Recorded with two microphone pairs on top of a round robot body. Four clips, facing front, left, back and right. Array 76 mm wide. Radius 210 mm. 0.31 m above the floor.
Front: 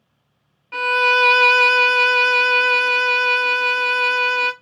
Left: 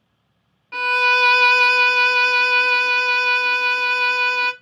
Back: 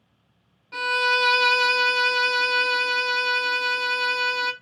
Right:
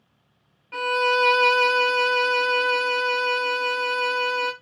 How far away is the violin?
About 0.7 m.